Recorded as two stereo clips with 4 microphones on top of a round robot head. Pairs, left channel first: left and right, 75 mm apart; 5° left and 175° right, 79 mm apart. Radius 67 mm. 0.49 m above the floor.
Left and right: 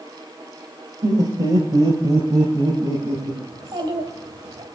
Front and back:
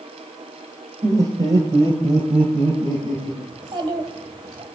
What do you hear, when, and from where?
1.0 s laughter: 125° right, 1.8 m; by 3.4 s 140° right, 4 m
3.5 s a child speaking: 135° right, 2.5 m